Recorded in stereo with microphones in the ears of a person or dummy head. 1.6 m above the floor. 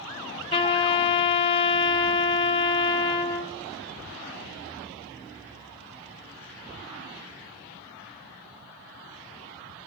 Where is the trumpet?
30° left (ahead or behind), 0.5 m.